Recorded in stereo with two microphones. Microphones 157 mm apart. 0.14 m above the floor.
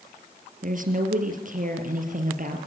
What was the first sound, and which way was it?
A woman speaking, 60° right (ahead or behind).